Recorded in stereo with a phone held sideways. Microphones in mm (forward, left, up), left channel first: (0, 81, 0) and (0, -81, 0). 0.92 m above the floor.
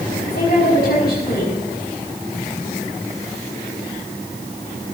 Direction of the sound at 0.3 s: 65° left (ahead or behind).